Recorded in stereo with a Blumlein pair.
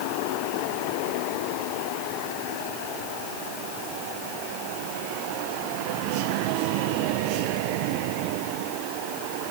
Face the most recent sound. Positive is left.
No sound to turn to.